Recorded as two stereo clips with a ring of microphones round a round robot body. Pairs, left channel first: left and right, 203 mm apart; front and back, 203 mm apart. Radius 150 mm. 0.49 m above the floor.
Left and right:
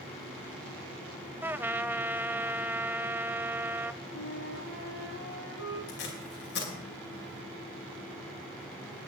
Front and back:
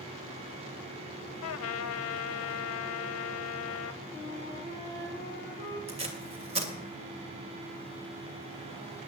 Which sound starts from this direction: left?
A flute, at 4.1 s.